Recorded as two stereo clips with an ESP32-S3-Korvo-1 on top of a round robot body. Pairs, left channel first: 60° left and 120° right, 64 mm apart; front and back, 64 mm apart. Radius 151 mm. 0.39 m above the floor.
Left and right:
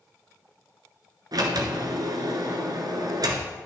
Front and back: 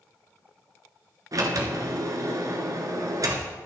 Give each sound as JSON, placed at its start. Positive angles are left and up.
{"t": 1.3, "sound": "a sliding door", "azimuth_deg": -145, "distance_m": 1.8}